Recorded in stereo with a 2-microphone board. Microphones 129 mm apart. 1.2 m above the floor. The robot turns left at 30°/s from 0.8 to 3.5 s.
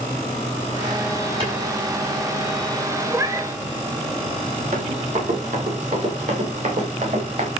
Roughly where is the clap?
Right.